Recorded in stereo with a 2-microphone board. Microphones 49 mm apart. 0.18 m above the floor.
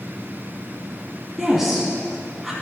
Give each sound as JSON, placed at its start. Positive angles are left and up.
{"t": 1.4, "sound": "a woman speaking", "side_deg": -5, "distance_m": 1.2}